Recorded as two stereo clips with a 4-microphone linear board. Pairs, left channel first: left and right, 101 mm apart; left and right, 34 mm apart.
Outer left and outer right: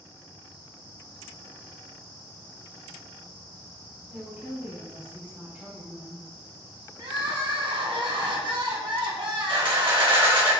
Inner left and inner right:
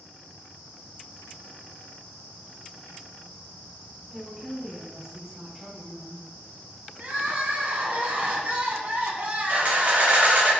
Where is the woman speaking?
15° right (ahead or behind), 1.7 m.